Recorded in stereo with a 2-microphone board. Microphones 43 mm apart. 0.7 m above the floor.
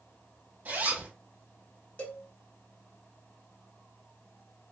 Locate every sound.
0.7 s a zipper: 45° right (ahead or behind), 1.9 m
2.0 s a cowbell: 40° left (ahead or behind), 0.9 m